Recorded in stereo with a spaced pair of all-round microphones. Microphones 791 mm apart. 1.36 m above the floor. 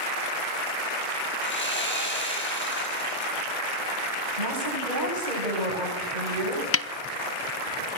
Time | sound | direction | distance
1.4 | sawing | 15° left (ahead or behind) | 9.5 m
4.4 | a woman speaking | 70° right (ahead or behind) | 9.5 m
6.7 | a snare drum | 20° left (ahead or behind) | 0.5 m